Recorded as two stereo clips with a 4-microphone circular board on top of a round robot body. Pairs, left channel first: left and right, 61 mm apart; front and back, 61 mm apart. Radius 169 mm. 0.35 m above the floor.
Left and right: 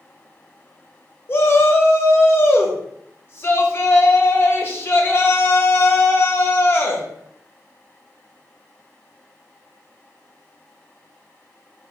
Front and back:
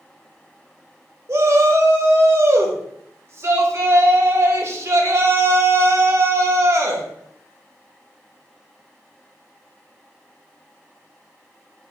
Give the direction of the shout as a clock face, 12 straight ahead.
7 o'clock.